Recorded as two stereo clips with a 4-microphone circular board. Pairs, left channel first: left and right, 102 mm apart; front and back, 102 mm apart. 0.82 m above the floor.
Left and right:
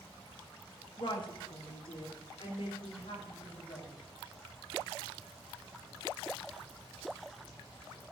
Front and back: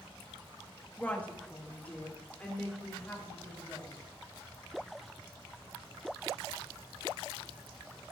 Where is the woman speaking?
70° left, 1.4 m; by 4.0 s 75° left, 5 m.